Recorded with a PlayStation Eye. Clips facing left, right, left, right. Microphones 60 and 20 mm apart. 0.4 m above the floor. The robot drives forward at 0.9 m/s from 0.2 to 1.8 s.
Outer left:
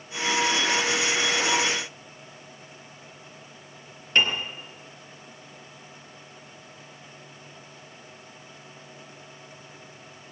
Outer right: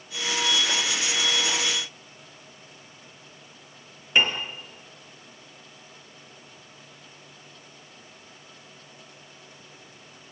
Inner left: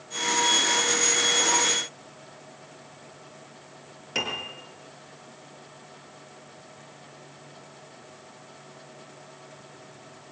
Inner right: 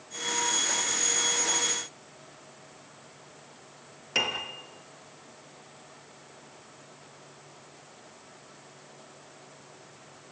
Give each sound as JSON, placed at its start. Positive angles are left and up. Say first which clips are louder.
{"t": 4.2, "sound": "a piano", "louder": "outer right 1 dB, inner right 1 dB", "side_deg": -10, "distance_m": 4.5}